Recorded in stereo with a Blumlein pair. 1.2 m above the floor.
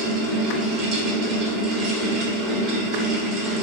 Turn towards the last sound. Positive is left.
turn(degrees=-30)